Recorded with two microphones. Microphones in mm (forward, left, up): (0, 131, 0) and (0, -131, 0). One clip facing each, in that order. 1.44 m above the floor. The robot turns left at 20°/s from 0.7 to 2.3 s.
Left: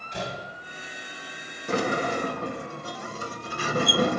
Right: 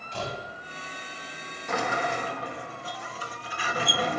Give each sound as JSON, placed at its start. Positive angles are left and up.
{"t": 0.1, "sound": "a door slam", "side_deg": 15, "distance_m": 7.0}
{"t": 1.7, "sound": "a sliding door", "side_deg": 35, "distance_m": 2.5}